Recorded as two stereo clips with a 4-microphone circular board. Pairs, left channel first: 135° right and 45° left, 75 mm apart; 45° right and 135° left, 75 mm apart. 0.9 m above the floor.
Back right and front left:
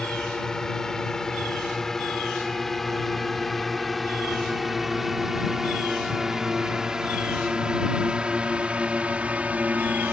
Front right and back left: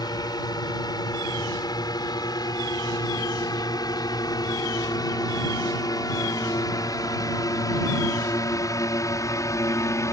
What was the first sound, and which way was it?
A drone, 55° right.